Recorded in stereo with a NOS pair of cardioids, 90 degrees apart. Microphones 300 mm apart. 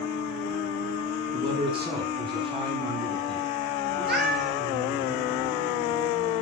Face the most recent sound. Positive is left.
turn(degrees=-35)